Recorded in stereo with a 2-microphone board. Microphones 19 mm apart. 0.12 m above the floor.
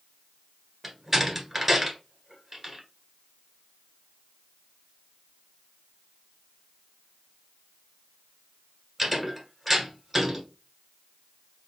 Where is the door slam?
10° right (ahead or behind), 1.4 m.